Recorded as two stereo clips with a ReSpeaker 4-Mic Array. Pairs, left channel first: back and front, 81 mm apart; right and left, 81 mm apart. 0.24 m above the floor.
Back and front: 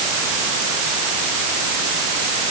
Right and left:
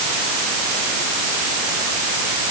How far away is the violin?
I don't hear a violin.